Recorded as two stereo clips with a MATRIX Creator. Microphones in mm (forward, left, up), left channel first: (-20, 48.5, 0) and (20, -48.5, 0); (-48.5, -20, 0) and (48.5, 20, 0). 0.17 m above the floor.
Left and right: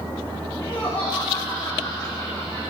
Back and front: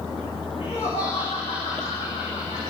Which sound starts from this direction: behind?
Laughter, at 0.6 s.